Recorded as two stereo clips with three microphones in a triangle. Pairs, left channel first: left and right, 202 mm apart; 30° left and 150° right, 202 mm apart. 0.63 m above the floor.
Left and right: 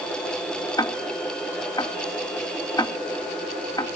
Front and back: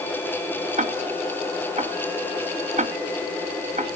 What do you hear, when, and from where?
0.8 s ticking: 160° left, 0.6 m